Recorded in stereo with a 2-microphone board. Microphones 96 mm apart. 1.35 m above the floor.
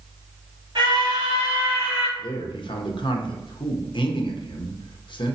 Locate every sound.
0.8 s a scream: 50° right (ahead or behind), 2 m; by 2.1 s 25° right (ahead or behind), 2.5 m
2.2 s a man speaking: 60° left (ahead or behind), 0.9 m